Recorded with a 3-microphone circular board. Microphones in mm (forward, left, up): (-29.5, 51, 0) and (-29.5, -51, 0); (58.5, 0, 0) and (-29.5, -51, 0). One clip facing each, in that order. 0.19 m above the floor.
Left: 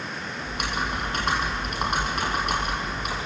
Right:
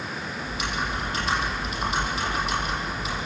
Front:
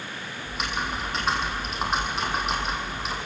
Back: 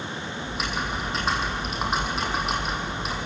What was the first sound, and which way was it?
Typing on a keyboard, 120° left.